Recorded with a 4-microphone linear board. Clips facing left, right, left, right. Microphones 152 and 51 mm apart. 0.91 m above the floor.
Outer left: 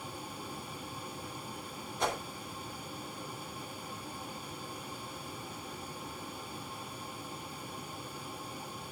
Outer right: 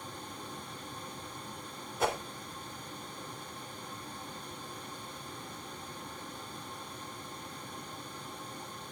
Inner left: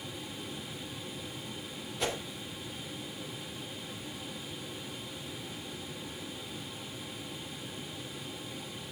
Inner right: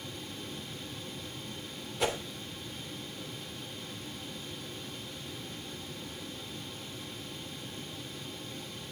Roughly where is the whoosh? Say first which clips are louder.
Outer right 2 dB, inner right 3 dB; centre.